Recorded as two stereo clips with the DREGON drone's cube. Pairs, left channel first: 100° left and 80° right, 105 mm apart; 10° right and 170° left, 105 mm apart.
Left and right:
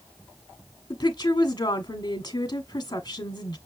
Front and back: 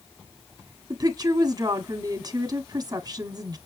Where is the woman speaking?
135° left, 1.5 m.